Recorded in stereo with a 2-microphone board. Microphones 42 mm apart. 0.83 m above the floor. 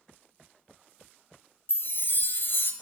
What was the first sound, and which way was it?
A chime, 55° left (ahead or behind).